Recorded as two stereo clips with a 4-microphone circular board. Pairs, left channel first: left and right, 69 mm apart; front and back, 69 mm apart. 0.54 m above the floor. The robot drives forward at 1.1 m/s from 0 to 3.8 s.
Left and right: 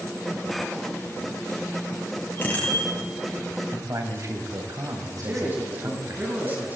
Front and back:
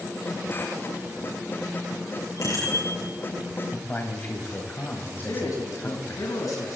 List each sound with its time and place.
2.4 s a bicycle bell: 30° left, 7.5 m
3.7 s a man speaking: 55° right, 3 m; by 6.2 s 60° right, 3 m
5.2 s a man speaking: 30° right, 4 m